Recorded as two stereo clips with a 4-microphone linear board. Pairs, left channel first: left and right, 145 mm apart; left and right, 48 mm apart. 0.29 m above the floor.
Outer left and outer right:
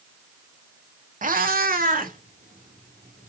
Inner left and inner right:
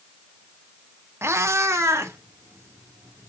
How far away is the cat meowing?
About 0.5 m.